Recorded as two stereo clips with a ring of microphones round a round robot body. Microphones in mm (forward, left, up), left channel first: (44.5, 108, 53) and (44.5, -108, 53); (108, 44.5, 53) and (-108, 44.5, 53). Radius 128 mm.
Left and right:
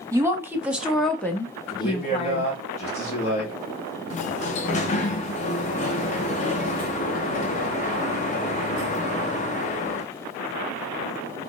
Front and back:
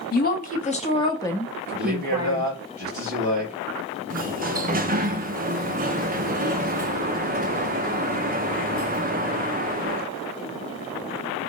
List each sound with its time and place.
0.1 s a woman speaking: 20° right, 1.1 m; by 2.5 s 130° left, 1.0 m
1.7 s a man speaking: 145° left, 2.5 m
4.1 s a sliding door: 140° left, 0.6 m